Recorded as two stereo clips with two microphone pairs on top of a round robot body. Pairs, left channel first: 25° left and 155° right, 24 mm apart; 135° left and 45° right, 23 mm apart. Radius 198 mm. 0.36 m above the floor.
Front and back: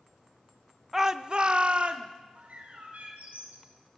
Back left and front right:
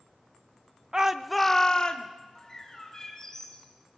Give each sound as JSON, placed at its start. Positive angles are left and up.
{"t": 0.9, "sound": "a shout", "azimuth_deg": -95, "distance_m": 1.0}
{"t": 2.4, "sound": "a bird", "azimuth_deg": -160, "distance_m": 3.5}